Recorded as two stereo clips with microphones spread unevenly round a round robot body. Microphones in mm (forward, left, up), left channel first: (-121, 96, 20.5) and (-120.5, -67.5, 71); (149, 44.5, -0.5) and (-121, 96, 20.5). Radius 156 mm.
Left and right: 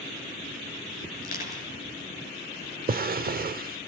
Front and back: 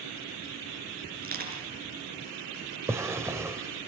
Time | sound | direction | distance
1.2 | crushing | 115° left | 6 m
2.9 | a drawer | 110° right | 0.7 m